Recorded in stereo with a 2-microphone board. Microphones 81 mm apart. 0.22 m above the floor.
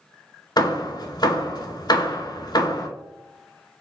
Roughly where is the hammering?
Left.